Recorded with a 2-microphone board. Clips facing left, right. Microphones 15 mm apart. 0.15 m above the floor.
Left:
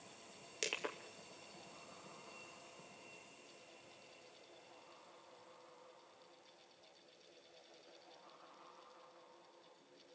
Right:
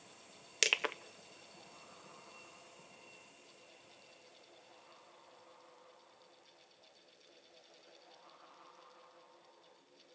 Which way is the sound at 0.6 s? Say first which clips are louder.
Right 10 dB; 45° right (ahead or behind).